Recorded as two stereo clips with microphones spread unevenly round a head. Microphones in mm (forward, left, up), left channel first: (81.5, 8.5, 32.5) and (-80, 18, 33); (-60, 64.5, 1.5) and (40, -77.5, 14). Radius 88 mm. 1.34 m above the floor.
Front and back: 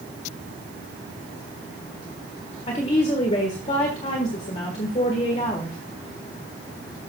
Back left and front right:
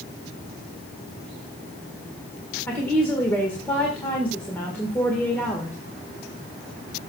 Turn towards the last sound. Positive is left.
turn(degrees=45)